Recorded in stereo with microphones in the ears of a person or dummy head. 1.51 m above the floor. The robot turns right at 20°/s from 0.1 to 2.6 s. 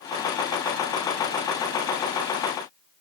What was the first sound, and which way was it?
Only background noise.